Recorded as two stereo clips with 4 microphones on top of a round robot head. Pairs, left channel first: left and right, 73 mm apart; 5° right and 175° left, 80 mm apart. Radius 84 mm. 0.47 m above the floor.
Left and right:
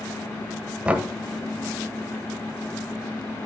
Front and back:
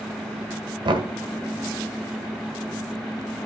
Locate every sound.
0.8 s knocking: 165° right, 1.6 m